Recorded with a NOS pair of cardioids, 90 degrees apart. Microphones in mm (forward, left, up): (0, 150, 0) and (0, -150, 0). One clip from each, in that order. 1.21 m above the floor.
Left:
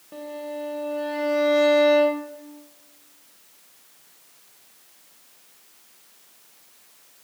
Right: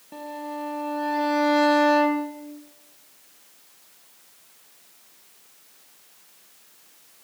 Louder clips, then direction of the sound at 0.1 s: Left 1 dB; 5° right.